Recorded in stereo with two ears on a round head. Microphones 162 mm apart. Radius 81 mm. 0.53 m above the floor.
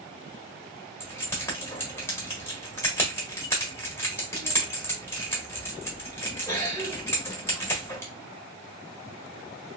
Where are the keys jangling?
15° left (ahead or behind), 1.2 m.